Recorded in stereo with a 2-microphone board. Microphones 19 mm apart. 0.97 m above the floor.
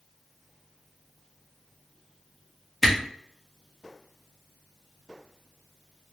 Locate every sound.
2.8 s a camera shutter: 5° right (ahead or behind), 1.2 m